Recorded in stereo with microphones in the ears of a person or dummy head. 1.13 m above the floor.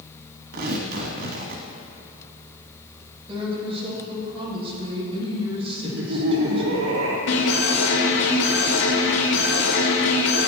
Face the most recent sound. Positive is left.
turn(degrees=75)  # may be behind; listen again after turning